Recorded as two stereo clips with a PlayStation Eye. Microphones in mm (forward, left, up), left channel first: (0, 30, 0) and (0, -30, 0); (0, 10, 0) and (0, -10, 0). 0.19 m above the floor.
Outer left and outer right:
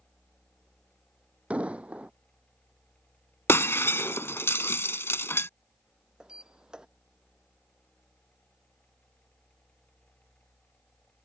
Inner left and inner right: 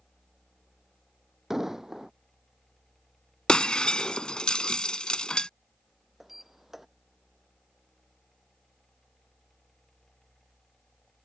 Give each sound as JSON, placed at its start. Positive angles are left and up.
{"t": 1.5, "sound": "an explosion", "side_deg": -25}
{"t": 3.5, "sound": "breaking glass", "side_deg": 50}
{"t": 6.2, "sound": "a sliding door", "side_deg": -15}